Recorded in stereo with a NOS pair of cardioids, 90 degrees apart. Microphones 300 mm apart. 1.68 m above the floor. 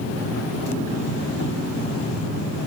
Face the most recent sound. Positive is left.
turn(degrees=60)